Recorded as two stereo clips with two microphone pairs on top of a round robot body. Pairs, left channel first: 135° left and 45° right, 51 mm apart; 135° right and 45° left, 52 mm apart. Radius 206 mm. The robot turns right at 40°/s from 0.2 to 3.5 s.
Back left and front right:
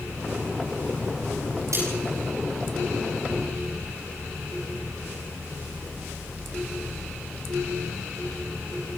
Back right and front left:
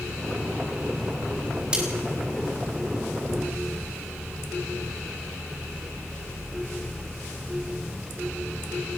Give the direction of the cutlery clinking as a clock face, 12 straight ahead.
1 o'clock.